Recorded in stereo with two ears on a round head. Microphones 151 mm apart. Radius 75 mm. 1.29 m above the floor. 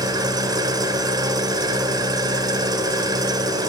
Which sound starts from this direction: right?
An engine running, at 0.0 s.